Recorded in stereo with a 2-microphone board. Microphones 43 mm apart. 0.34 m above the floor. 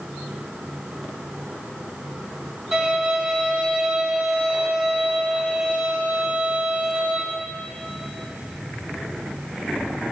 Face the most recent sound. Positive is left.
turn(degrees=-10)  # may be behind; listen again after turning